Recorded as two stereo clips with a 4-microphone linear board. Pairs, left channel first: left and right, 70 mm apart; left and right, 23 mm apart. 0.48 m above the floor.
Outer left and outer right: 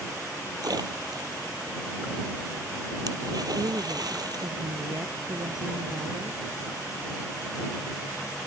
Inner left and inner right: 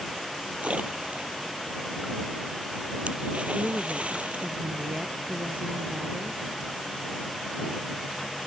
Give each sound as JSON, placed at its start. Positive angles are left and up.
{"t": 0.6, "sound": "a splash", "side_deg": -70}
{"t": 3.5, "sound": "a woman speaking", "side_deg": -80}